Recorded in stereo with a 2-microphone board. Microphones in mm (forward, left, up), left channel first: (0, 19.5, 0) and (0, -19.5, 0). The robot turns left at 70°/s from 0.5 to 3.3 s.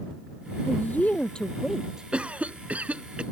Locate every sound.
0.7 s a woman speaking: 75° left; by 2.1 s 25° right
2.1 s a cough: 50° right; by 3.2 s 130° right